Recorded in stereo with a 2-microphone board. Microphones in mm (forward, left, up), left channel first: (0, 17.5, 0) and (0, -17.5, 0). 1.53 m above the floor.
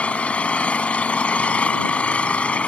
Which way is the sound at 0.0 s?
35° left (ahead or behind).